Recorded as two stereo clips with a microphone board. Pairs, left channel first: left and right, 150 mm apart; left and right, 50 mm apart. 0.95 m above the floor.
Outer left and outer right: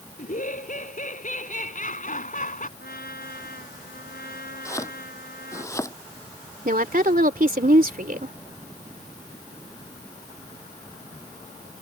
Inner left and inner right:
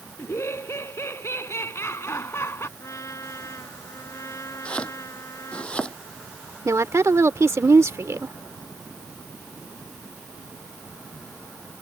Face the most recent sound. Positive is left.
turn(degrees=-70)  # may be behind; listen again after turning